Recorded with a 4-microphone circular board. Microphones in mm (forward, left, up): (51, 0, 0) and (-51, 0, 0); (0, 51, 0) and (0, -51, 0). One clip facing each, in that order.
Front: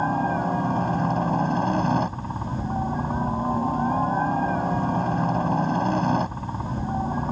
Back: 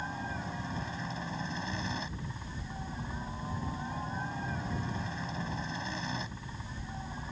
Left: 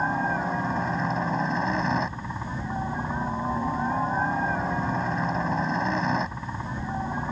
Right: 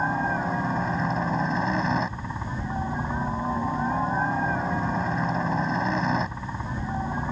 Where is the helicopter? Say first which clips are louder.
Front 15 dB, even; straight ahead.